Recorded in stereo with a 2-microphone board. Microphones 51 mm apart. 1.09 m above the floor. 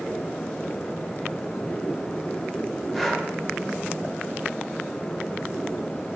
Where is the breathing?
Centre (ahead or behind), 0.9 m.